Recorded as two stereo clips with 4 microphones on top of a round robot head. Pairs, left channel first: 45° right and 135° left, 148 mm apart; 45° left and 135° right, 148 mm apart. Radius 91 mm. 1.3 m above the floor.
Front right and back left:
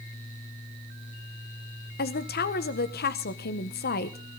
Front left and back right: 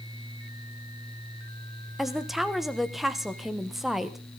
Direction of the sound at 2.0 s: 50° right.